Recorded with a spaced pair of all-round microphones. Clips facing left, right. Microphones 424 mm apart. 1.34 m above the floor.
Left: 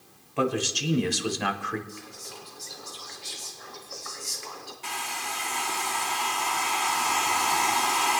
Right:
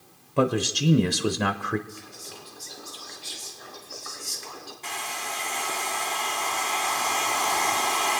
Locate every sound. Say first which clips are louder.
0.4 s a man speaking: right 3 dB; 50° right (ahead or behind), 0.6 m
1.9 s whispering: even; 30° right (ahead or behind), 2.5 m
4.8 s a hair dryer: right 2 dB; 20° left (ahead or behind), 1.1 m